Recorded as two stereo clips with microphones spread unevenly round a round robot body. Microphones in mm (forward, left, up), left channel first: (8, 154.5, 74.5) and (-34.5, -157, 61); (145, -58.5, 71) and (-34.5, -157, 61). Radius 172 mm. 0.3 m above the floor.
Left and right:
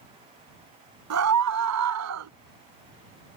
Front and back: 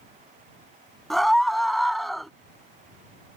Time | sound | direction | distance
1.1 | a scream | 60° right | ?